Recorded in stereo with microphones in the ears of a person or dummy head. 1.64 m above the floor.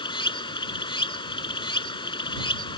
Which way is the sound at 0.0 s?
30° left (ahead or behind).